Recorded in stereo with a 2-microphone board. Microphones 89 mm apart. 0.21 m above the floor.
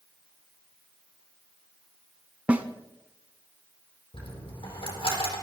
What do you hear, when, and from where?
2.5 s a snare drum: 15° right (ahead or behind), 0.8 m
4.1 s a dropped coin: 80° left, 4.5 m